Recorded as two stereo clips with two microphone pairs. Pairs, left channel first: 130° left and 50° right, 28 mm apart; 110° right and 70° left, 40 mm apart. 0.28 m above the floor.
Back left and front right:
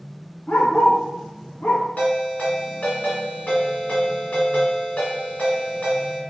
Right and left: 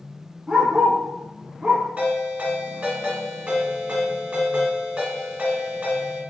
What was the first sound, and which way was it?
A dog barking, 140° left.